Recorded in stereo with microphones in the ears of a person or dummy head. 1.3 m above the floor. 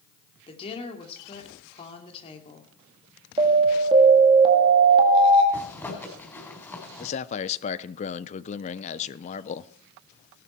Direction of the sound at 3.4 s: 20° right (ahead or behind).